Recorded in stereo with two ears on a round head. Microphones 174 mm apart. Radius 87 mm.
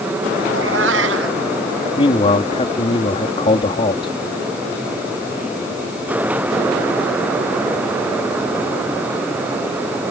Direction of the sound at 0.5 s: 75° right (ahead or behind).